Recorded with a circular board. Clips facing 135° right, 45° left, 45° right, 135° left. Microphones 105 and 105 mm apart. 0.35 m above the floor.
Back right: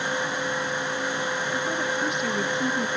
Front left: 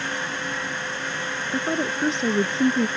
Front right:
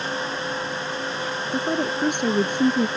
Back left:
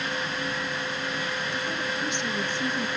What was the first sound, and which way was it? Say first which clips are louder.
A woman speaking: front left 2 dB, front right 7 dB; 10° right.